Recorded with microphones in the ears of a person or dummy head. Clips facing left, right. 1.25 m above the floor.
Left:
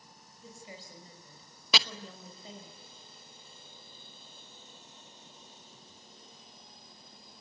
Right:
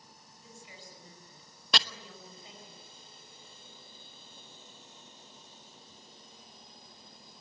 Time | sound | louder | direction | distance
0.4 | a woman speaking | left 4 dB | 35° left (ahead or behind) | 5.5 m
1.7 | chopping | left 1 dB | 5° left (ahead or behind) | 0.9 m